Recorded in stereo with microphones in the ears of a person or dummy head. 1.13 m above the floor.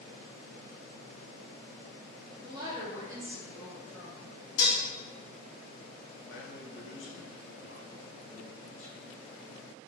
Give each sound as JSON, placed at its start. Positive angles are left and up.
{"t": 2.4, "sound": "a woman speaking", "side_deg": -20, "distance_m": 0.7}
{"t": 4.6, "sound": "dishes clattering", "side_deg": 80, "distance_m": 1.6}
{"t": 6.3, "sound": "a man speaking", "side_deg": 70, "distance_m": 0.6}